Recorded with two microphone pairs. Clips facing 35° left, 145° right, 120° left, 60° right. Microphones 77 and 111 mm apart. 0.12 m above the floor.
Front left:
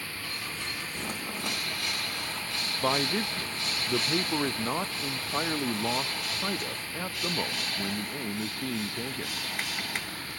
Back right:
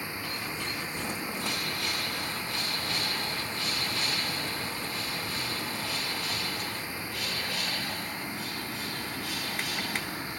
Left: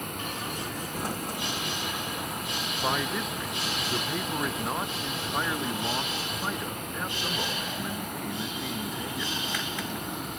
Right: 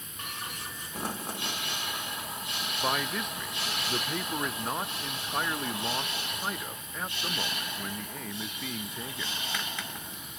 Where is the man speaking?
35° left.